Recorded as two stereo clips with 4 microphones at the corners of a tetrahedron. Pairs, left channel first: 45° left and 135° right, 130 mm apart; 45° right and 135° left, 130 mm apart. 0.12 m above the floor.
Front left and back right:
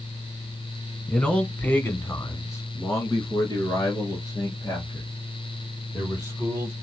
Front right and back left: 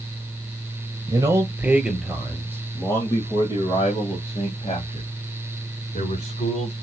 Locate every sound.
1.1 s a man speaking: 120° left, 1.3 m; by 6.7 s 20° right, 3.5 m